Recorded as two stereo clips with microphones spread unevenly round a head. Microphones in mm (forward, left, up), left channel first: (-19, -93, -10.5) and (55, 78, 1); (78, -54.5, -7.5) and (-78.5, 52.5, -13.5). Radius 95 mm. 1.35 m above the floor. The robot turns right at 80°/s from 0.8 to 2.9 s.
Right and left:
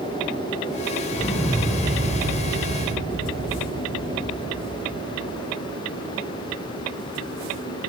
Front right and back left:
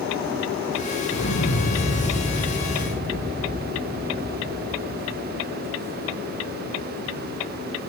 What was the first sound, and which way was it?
An explosion, 50° right.